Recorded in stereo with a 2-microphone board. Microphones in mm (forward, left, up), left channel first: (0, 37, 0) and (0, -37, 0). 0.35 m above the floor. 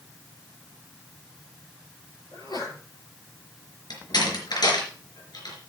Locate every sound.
2.3 s a sneeze: 70° left (ahead or behind), 7.5 m
3.9 s a door slam: 70° left (ahead or behind), 4 m